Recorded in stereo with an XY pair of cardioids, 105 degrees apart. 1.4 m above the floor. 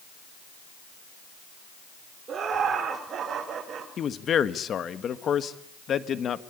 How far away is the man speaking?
About 1.7 m.